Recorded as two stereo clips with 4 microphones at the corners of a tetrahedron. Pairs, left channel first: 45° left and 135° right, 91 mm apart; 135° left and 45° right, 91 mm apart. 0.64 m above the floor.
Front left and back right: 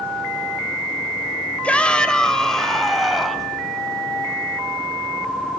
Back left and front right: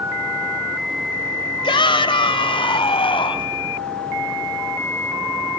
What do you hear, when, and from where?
1.6 s a shout: 120° left, 2.5 m; by 3.5 s 135° left, 4 m